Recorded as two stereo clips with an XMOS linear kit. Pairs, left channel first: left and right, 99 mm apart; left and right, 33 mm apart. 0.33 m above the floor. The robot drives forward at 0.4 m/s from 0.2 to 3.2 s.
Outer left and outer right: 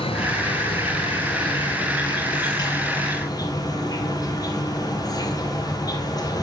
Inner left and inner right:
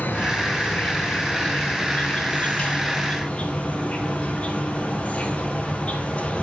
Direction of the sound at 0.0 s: 75° left (ahead or behind).